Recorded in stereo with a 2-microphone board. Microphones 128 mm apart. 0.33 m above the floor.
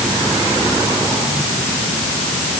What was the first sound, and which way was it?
Only background noise.